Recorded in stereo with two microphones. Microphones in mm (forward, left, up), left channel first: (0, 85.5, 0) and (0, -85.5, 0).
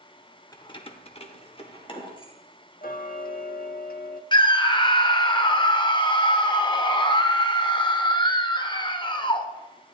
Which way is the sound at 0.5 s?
20° left (ahead or behind).